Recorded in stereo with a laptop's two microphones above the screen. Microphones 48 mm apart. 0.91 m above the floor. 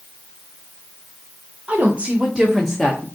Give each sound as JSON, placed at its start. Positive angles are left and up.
{"t": 1.7, "sound": "a woman speaking", "side_deg": -35, "distance_m": 1.2}